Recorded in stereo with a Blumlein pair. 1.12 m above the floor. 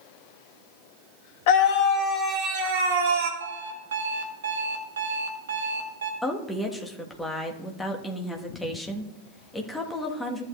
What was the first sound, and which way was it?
A scream, 50° left.